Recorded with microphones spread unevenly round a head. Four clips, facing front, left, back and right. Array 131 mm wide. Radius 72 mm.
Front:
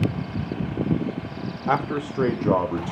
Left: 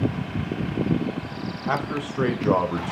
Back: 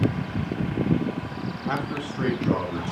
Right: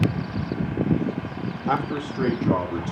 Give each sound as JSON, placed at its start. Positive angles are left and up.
{"t": 1.7, "sound": "a man speaking", "azimuth_deg": 0, "distance_m": 1.4}